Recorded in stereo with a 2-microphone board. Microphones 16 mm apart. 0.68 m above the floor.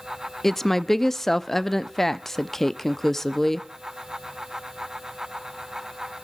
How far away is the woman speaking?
About 0.6 m.